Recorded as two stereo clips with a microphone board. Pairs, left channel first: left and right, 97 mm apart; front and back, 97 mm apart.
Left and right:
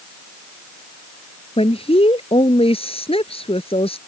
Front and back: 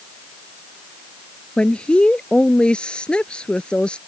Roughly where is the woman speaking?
Left.